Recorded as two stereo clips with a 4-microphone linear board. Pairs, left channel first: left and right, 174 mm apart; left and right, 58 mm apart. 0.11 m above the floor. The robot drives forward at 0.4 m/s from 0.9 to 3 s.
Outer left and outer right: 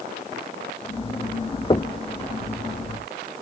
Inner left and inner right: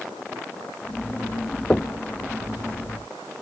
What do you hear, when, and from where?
1.7 s knocking: 25° left (ahead or behind)